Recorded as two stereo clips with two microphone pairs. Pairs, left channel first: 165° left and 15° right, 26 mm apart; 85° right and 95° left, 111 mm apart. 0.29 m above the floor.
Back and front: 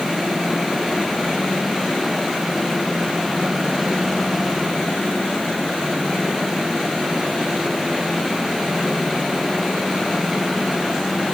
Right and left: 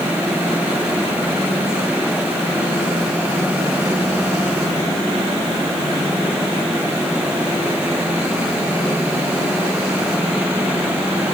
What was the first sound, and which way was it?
Only background noise.